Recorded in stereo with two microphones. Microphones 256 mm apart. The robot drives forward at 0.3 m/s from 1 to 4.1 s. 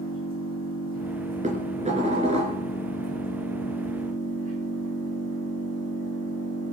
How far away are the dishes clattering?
About 2.5 m.